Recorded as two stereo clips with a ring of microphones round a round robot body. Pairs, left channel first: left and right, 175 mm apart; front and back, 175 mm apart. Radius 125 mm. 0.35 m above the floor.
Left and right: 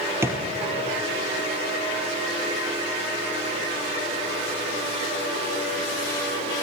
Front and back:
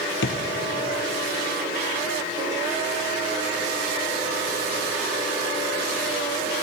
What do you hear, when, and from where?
0.2 s a drawer: 15° right, 3 m